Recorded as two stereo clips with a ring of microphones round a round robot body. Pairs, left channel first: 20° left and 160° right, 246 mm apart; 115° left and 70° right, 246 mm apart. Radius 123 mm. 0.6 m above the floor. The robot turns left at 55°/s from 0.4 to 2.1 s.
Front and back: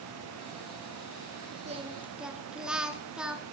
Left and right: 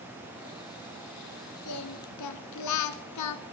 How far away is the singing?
About 1.1 m.